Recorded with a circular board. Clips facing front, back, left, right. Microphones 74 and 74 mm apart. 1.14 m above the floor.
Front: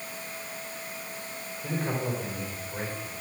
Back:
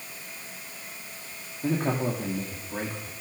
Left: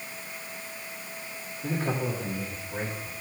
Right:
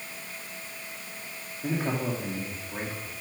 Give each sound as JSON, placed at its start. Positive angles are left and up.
{"t": 1.6, "sound": "a man speaking", "azimuth_deg": -170, "distance_m": 2.5}